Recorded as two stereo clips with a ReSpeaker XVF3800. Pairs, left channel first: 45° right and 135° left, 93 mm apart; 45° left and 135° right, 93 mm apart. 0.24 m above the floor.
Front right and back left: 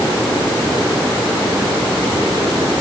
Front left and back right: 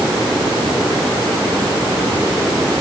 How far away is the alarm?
I don't hear an alarm.